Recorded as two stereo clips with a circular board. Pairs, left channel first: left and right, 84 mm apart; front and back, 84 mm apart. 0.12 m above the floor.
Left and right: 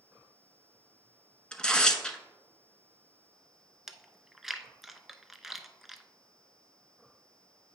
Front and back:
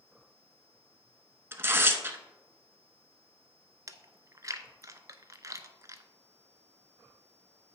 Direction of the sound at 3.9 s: 175° right.